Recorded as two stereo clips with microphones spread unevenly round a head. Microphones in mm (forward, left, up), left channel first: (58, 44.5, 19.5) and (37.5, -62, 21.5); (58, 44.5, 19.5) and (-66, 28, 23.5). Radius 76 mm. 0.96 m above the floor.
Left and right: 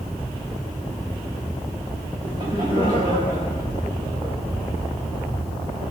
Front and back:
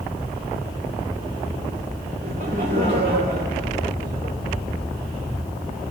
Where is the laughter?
155° right, 3 m.